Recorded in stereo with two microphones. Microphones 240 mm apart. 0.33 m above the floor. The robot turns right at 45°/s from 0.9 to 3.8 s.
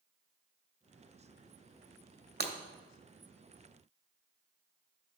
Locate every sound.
2.4 s breaking glass: 45° right (ahead or behind), 0.7 m; by 2.5 s 40° right (ahead or behind), 0.7 m